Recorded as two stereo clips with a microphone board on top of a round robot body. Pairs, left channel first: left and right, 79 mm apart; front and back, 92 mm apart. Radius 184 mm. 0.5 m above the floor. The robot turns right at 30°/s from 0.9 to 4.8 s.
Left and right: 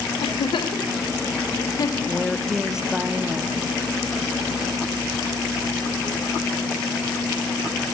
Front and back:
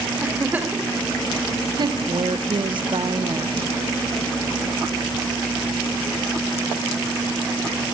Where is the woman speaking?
165° left, 1.3 m; by 3.7 s 145° right, 1.3 m.